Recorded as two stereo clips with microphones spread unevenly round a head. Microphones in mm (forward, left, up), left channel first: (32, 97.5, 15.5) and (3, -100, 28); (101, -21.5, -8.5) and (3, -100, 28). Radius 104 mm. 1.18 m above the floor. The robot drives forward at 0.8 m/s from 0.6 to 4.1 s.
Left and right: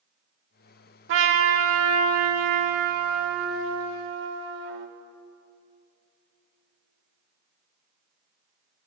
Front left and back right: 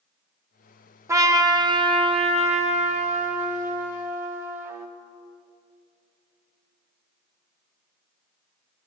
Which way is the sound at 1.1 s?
75° right.